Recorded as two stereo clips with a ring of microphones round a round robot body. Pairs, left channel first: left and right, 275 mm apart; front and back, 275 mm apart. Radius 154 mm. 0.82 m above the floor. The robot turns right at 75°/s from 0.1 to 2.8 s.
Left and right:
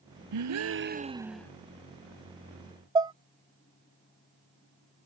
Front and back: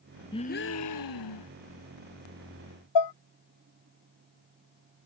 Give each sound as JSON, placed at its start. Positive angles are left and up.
{"t": 0.3, "sound": "a gasp", "azimuth_deg": -80}
{"t": 3.0, "sound": "dishes clattering", "azimuth_deg": -10}